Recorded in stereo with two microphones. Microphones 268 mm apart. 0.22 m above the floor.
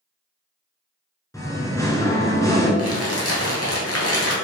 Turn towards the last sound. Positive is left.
turn(degrees=65)  # may be behind; listen again after turning